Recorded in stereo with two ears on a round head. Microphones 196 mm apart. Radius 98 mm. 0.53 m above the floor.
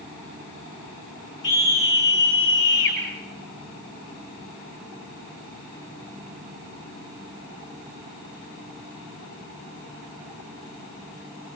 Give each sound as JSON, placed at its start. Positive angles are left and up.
{"t": 1.4, "sound": "a scream", "side_deg": 60, "distance_m": 8.5}